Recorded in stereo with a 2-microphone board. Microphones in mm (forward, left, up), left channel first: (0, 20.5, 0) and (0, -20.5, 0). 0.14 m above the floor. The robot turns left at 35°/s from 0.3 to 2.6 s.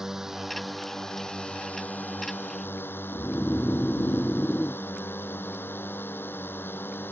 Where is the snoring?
35° left (ahead or behind).